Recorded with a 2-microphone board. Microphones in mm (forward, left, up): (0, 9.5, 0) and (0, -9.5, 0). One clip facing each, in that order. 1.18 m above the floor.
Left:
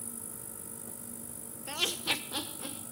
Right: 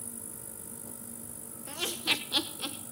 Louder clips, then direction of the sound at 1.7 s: Right 1 dB; 40° left (ahead or behind).